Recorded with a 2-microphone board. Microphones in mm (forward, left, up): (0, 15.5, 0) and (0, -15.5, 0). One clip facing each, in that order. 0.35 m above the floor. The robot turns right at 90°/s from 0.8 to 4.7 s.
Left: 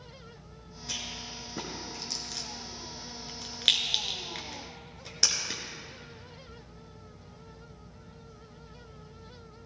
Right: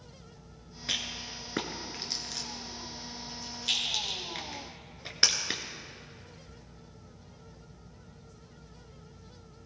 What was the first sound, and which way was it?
A rattle, 45° right (ahead or behind).